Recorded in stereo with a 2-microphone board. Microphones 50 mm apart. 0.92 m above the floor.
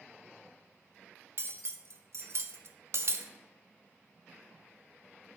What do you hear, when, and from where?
1.4 s cutlery clinking: 60° right (ahead or behind), 0.6 m